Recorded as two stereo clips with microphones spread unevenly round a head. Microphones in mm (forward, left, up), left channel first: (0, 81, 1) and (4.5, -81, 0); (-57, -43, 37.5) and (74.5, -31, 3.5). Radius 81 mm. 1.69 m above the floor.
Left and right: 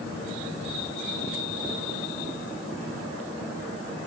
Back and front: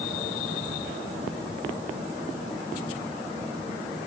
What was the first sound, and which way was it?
Only background noise.